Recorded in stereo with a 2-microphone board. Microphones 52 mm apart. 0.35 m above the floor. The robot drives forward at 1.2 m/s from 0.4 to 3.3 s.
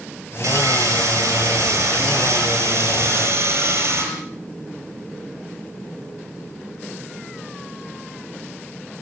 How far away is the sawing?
About 7 m.